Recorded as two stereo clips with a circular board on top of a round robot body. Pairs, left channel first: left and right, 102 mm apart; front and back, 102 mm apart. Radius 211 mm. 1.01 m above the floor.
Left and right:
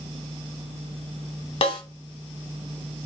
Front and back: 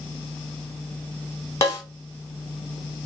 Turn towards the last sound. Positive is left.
turn(degrees=60)